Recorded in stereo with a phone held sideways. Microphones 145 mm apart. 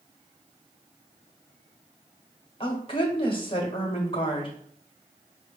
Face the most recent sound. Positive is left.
turn(degrees=40)  # may be behind; listen again after turning